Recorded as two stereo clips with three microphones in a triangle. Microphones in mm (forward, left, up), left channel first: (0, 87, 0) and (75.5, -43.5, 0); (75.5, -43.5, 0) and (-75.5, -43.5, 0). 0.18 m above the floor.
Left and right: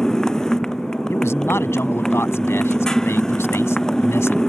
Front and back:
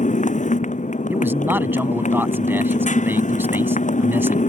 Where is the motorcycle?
35° left.